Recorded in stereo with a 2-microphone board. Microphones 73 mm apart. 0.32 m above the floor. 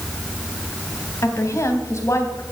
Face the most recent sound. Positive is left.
turn(degrees=40)  # may be behind; listen again after turning